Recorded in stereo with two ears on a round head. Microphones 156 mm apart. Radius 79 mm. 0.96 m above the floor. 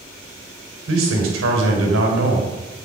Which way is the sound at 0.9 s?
80° right.